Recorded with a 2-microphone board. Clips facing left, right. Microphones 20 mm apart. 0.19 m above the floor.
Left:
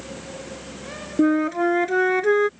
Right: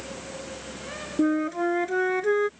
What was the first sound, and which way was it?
A flute, 20° left (ahead or behind).